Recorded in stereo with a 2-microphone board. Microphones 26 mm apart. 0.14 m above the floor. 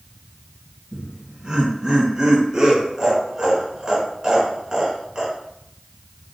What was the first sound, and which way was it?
Laughter, 25° right (ahead or behind).